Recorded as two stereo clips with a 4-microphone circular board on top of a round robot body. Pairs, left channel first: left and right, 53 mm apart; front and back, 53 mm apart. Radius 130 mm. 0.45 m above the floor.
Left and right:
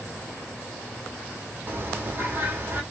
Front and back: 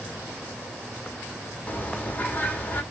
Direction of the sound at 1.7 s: 55° right.